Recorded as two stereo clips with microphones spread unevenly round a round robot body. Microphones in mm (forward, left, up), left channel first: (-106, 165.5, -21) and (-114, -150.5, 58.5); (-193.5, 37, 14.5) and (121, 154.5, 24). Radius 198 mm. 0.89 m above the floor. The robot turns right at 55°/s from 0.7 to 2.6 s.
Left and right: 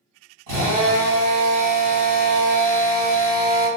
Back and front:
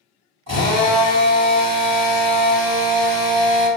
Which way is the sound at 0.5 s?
20° right.